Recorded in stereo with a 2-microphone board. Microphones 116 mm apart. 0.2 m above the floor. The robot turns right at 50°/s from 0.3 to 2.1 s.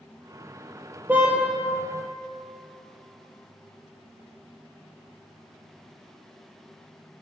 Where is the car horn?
15° right (ahead or behind), 3 m; by 1.4 s centre (ahead or behind), 3 m.